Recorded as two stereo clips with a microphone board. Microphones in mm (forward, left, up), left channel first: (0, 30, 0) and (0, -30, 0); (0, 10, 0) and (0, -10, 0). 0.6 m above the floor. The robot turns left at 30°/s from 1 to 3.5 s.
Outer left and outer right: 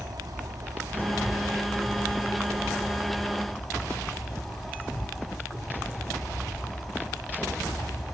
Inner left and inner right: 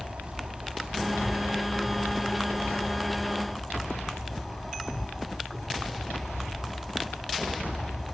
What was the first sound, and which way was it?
An insect, 105° right.